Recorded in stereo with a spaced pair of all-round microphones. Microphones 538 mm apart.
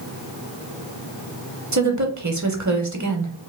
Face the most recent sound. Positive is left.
turn(degrees=-35)  # may be behind; listen again after turning